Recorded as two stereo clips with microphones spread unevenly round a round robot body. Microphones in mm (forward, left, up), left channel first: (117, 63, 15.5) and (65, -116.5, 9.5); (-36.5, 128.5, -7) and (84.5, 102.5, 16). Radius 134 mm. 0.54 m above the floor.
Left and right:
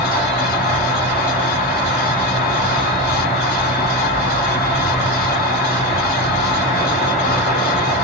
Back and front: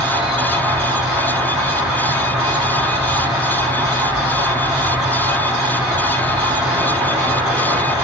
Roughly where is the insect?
Left.